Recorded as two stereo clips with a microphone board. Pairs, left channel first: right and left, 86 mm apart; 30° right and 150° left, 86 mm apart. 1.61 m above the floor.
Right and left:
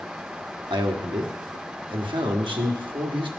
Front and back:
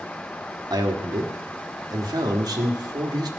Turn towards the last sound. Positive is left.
turn(degrees=110)